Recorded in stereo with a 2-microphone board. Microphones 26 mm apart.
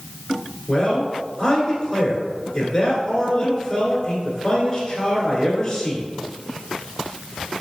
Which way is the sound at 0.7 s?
30° left (ahead or behind).